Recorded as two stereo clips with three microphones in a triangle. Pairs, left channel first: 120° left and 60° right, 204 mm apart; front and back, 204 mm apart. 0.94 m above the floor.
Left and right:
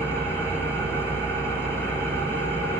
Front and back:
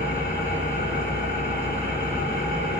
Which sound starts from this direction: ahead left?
An engine running, at 0.0 s.